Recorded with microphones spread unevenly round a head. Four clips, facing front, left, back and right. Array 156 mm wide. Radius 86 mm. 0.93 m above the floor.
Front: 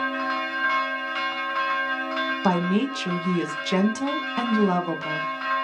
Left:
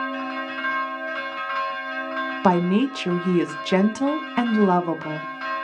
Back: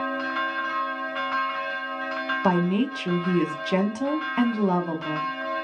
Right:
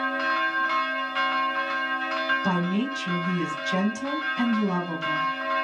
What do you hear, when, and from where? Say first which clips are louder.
2.4 s a woman speaking: left 7 dB, back 1 dB; 80° left, 0.9 m